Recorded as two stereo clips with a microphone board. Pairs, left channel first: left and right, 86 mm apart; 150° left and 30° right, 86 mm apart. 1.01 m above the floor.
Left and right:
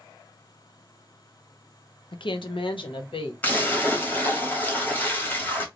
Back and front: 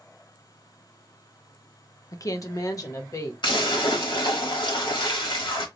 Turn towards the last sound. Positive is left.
turn(degrees=160)